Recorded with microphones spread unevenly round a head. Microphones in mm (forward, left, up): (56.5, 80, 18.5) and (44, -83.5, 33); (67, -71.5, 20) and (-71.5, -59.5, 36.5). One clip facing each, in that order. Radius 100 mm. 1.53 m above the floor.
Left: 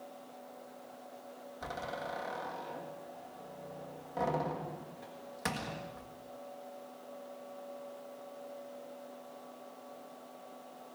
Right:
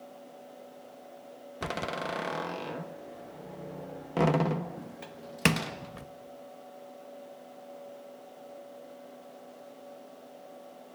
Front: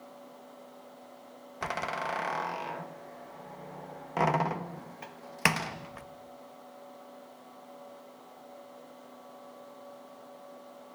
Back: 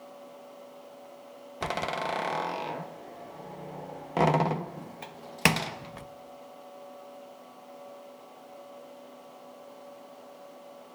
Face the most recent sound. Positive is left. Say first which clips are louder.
# right 6 dB, back 3 dB
turn(degrees=-125)